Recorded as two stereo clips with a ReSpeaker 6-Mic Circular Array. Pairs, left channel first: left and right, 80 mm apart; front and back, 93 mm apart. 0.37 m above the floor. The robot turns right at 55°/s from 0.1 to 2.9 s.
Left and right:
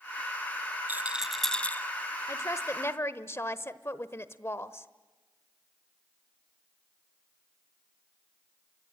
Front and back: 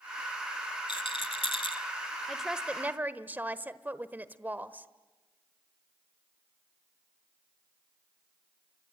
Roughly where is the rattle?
Ahead right.